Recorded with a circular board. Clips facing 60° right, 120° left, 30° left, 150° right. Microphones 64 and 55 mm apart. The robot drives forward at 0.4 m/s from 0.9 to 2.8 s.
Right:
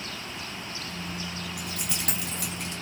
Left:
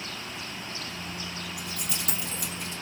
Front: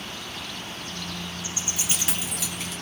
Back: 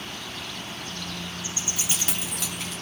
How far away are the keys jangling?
About 2.5 m.